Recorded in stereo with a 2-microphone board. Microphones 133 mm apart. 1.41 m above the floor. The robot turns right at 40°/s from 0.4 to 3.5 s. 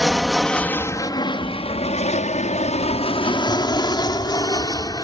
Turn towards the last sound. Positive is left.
turn(degrees=30)  # may be behind; listen again after turning